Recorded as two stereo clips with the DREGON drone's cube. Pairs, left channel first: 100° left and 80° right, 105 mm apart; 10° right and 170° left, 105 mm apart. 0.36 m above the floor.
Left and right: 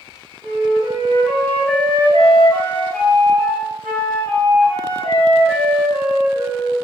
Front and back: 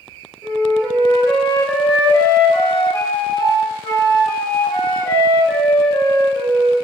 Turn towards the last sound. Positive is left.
turn(degrees=15)